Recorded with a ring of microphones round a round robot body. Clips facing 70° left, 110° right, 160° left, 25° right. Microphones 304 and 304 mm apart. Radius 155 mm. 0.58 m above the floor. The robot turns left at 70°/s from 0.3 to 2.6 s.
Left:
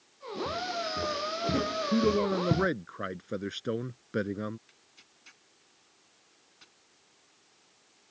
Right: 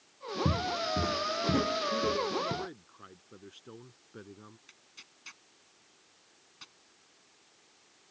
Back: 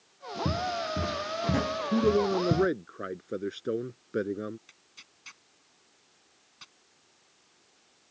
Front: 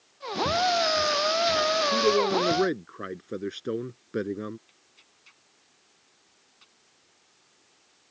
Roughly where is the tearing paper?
Behind.